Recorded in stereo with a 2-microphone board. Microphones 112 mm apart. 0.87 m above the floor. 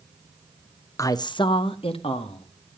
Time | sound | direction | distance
1.0 | a man speaking | 25° left (ahead or behind) | 0.7 m